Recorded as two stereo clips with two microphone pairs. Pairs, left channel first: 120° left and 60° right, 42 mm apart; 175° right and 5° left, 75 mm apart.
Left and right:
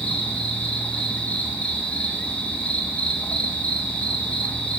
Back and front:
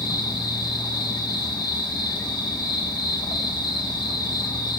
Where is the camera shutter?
No camera shutter in this recording.